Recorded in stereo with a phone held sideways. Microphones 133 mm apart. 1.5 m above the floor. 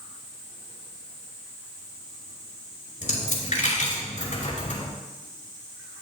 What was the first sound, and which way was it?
A dropped coin, 65° left (ahead or behind).